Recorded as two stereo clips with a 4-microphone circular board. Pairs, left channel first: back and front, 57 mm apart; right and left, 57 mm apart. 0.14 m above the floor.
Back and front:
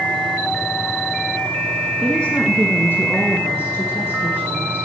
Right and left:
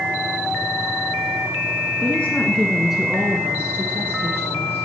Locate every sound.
2.0 s a woman speaking: 115° right, 1.4 m; by 4.9 s 140° left, 3 m